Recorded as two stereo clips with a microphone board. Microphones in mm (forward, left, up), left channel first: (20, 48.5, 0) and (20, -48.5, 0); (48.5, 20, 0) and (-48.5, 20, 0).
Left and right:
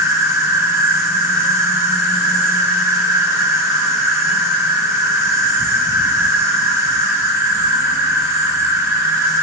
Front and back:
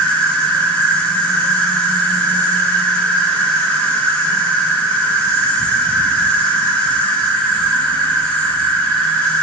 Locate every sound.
0.0 s an insect: 65° right, 2 m